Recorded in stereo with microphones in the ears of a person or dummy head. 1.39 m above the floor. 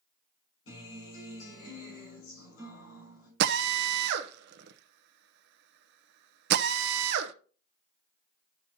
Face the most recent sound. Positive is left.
turn(degrees=-70)  # may be behind; listen again after turning